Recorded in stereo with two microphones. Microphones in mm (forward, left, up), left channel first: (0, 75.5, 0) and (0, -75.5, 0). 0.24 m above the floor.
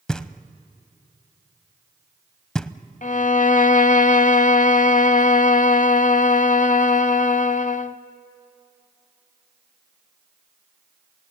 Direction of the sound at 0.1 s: 5° left (ahead or behind).